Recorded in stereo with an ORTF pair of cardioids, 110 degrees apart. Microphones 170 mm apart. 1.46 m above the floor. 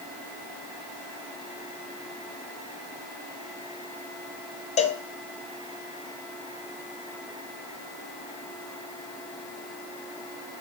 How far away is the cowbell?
About 0.6 m.